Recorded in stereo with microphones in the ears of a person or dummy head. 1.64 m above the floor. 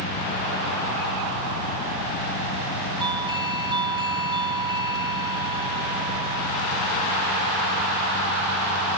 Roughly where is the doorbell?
Centre.